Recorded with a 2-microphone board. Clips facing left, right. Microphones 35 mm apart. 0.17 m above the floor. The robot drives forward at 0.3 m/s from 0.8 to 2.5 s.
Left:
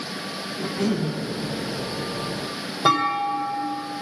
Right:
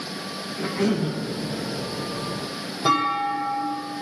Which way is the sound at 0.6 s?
30° right (ahead or behind).